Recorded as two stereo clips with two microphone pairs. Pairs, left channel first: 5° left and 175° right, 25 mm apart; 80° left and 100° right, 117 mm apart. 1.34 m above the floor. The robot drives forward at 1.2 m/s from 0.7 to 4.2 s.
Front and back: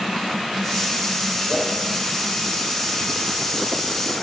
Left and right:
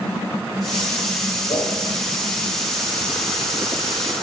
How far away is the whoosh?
About 7 m.